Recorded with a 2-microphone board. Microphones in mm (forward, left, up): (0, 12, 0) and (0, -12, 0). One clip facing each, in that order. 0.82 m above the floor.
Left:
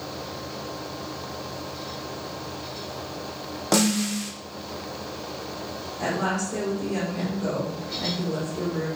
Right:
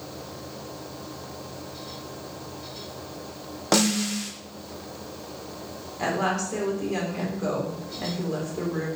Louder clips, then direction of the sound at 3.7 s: Even; 15° right (ahead or behind).